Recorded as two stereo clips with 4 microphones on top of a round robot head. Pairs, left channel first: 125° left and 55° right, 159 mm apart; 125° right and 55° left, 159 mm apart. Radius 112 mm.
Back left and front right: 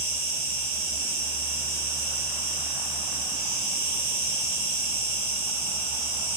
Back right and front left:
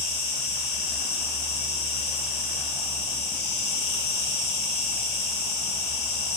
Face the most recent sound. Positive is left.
turn(degrees=-110)